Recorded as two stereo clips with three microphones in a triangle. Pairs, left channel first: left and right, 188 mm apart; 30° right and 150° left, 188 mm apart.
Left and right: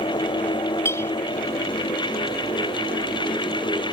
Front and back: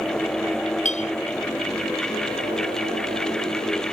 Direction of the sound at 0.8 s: 15° left.